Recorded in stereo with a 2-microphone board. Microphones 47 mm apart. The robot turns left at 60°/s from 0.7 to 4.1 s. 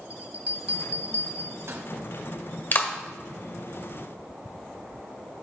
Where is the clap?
40° left (ahead or behind), 1.2 m.